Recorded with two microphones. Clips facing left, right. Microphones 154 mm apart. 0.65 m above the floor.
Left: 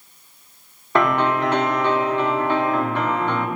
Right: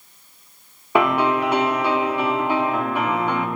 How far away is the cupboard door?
No cupboard door in this recording.